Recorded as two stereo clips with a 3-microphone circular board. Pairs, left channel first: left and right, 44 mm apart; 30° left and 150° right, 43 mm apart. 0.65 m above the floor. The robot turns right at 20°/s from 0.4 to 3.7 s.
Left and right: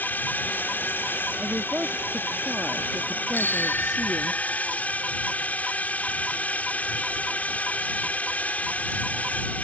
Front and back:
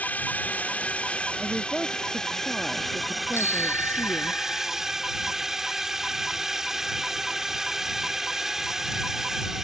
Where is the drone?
65° left; by 9.6 s 130° left.